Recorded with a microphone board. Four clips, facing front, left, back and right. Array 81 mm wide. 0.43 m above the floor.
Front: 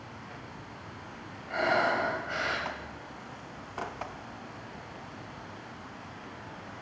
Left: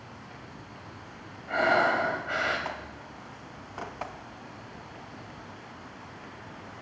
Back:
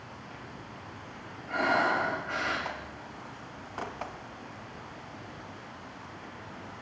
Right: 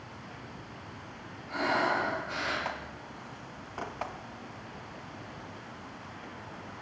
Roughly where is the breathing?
Left.